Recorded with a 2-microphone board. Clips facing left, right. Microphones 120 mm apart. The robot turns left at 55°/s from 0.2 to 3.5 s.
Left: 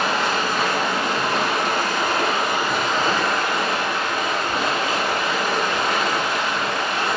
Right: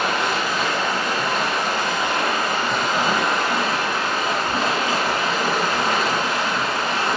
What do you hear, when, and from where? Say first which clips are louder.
0.0 s running water: even; 145° left, 1.1 m; by 7.2 s 35° right, 1.1 m